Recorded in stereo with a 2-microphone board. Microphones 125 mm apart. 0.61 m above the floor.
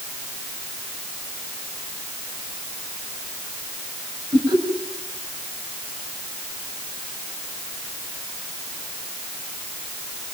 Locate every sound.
4.3 s laughter: 40° right (ahead or behind), 7 m